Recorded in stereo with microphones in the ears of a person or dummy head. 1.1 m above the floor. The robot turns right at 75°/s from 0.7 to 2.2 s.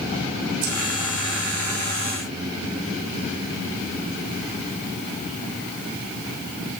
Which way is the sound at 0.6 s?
70° right (ahead or behind).